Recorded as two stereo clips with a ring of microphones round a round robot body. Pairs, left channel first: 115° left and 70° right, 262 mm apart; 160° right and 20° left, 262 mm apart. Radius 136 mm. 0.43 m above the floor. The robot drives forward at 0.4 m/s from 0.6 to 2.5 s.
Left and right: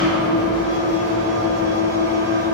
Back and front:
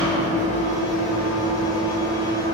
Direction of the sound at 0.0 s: 140° left.